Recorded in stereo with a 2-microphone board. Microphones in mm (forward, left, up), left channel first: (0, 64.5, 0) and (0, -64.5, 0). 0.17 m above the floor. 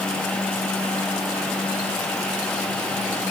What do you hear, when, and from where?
Only background noise.